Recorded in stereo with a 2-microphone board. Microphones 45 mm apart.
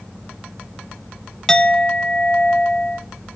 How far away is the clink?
About 0.6 m.